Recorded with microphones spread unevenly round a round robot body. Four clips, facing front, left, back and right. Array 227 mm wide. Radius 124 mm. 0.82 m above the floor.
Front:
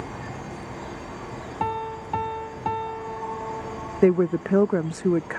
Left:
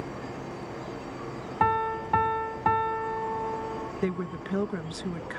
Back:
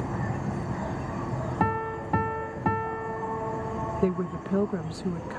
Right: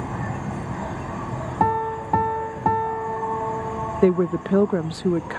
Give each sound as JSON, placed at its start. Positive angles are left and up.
{"t": 0.0, "sound": "an insect", "azimuth_deg": -85}
{"t": 1.6, "sound": "a piano", "azimuth_deg": -130}
{"t": 4.0, "sound": "a woman speaking", "azimuth_deg": -55}